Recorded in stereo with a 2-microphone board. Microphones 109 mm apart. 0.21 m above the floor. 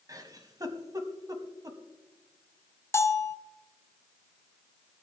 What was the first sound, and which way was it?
A giggle, 30° right (ahead or behind).